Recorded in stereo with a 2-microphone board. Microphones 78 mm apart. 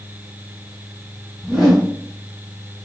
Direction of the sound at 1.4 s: Centre (ahead or behind).